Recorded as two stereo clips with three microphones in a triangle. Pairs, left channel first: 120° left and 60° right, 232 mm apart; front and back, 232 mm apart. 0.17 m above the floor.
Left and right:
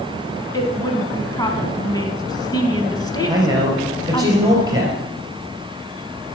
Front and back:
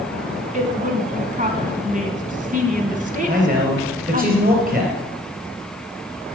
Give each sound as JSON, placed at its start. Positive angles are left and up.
{"t": 0.5, "sound": "a woman speaking", "azimuth_deg": 180, "distance_m": 1.1}
{"t": 3.3, "sound": "a man speaking", "azimuth_deg": -130, "distance_m": 3.0}